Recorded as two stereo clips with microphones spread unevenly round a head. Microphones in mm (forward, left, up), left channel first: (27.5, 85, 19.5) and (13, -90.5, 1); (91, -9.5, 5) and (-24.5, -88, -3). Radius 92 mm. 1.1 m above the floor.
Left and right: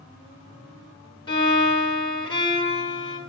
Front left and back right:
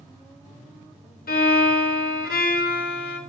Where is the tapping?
No tapping in this recording.